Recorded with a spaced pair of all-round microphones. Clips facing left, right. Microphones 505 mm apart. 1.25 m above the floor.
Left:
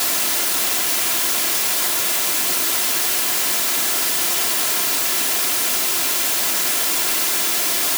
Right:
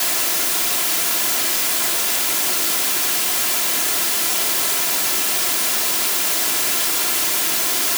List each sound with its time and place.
Only background noise.